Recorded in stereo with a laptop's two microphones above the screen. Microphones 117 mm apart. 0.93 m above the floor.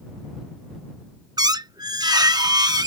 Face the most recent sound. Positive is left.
turn(degrees=-35)  # may be behind; listen again after turning